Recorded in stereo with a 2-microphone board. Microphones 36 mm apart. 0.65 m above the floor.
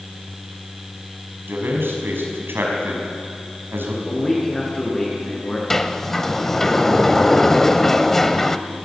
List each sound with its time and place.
1.5 s a man speaking: 80° right, 5.5 m
4.0 s a man speaking: 15° left (ahead or behind), 7.5 m
5.7 s a sliding door: 10° left (ahead or behind), 0.8 m